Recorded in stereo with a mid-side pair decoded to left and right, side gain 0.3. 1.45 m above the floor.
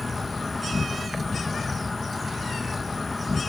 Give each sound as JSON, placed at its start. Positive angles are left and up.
{"t": 0.0, "sound": "an insect", "azimuth_deg": 30}